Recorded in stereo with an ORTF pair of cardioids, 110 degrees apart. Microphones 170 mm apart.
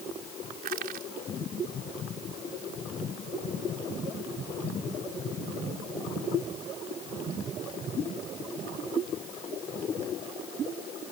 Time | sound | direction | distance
0.6 | crushing | 70° right | ?